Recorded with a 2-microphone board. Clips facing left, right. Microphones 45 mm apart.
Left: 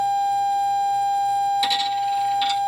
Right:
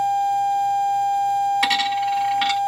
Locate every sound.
1.6 s a dropped coin: 70° right (ahead or behind), 0.9 m